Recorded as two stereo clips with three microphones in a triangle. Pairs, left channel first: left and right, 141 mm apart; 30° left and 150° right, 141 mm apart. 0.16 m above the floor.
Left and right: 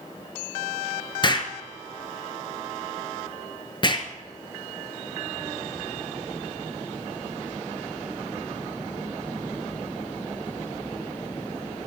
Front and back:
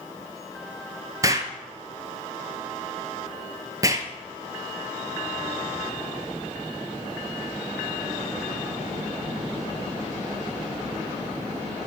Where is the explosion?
145° left, 0.6 m.